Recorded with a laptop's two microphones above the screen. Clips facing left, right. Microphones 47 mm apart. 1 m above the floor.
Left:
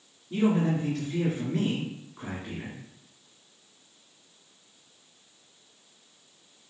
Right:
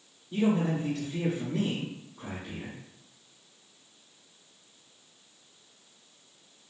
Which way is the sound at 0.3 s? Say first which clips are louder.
Left 2 dB; 70° left (ahead or behind).